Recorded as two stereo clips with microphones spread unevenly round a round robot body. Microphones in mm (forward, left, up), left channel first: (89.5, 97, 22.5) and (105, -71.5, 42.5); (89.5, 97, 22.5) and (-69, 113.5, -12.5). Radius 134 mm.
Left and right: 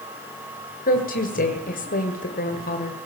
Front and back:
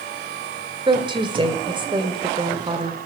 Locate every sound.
0.9 s a woman speaking: 125° left, 1.8 m